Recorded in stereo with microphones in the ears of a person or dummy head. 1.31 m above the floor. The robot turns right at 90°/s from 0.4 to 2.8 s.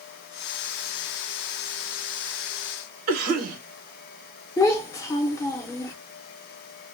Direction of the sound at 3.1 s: 50° right (ahead or behind).